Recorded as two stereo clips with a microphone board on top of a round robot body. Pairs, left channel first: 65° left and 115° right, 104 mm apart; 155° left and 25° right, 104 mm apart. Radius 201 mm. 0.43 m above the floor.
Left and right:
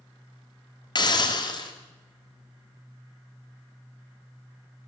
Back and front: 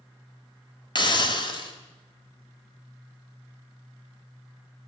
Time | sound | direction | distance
0.9 | a hiss | 115° left | 1.7 m